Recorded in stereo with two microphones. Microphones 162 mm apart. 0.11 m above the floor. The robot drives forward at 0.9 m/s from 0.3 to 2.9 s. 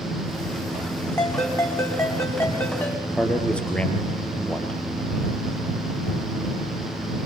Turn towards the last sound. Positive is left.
turn(degrees=5)  # may be behind; listen again after turning